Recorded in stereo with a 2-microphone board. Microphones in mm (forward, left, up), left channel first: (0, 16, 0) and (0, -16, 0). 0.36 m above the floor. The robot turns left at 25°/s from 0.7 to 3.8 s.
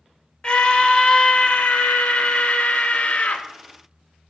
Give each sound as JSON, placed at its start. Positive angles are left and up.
{"t": 0.4, "sound": "a scream", "azimuth_deg": 140, "distance_m": 1.1}